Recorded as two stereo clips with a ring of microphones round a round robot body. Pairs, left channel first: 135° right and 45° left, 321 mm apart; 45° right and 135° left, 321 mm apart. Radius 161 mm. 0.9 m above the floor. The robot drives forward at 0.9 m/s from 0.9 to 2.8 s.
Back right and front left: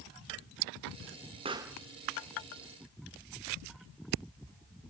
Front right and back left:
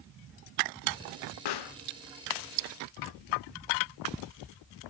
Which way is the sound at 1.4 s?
30° right.